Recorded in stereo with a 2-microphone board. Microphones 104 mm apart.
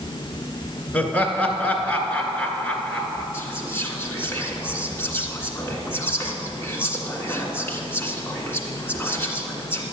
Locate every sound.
0.9 s laughter: 15° left (ahead or behind), 2.0 m
3.3 s whispering: 20° left (ahead or behind), 2.0 m